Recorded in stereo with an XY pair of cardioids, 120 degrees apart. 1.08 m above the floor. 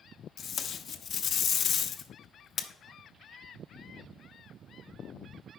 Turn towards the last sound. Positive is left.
turn(degrees=50)